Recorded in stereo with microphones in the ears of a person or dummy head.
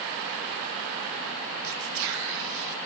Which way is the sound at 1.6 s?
60° right (ahead or behind).